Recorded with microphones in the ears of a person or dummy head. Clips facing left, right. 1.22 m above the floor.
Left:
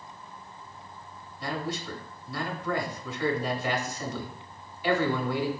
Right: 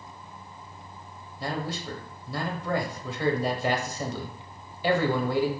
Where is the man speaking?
30° right (ahead or behind), 0.7 m.